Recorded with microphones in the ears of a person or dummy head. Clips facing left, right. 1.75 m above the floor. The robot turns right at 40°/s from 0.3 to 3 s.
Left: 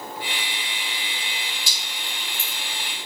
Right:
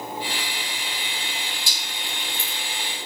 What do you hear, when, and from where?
1.7 s dripping: 15° right (ahead or behind), 1.2 m; by 2.6 s 15° left (ahead or behind), 1.2 m